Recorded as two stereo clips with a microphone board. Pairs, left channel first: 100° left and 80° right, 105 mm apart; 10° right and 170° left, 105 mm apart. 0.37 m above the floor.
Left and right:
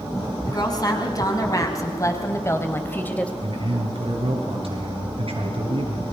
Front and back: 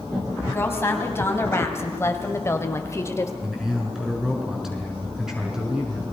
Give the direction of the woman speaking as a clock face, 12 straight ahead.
10 o'clock.